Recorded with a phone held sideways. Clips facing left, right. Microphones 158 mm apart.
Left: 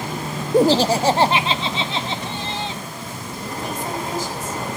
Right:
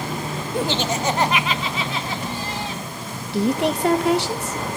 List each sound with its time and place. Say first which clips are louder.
0.5 s laughter: left 9 dB; 40° left (ahead or behind), 0.7 m; by 2.8 s 25° left (ahead or behind), 2.5 m
3.3 s a woman speaking: right 10 dB; 75° right (ahead or behind), 1.8 m